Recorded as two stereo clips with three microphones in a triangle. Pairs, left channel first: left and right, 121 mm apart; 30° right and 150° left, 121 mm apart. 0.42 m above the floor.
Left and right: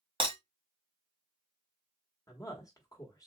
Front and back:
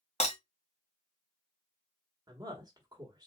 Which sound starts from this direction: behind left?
A woman speaking, at 2.3 s.